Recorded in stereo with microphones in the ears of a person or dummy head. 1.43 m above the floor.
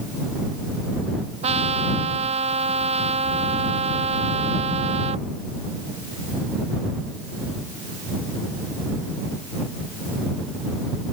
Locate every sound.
1.4 s a trumpet: 35° right (ahead or behind)